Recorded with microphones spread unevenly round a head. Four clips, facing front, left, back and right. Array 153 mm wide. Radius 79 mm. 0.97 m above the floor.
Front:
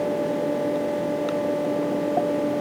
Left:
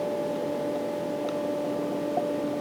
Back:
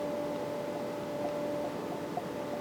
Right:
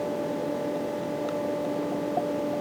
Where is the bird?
No bird in this recording.